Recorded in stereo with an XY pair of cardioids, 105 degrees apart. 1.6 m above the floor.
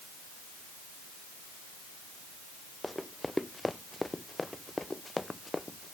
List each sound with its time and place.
2.8 s running footsteps: 5° left; by 5.9 s 15° left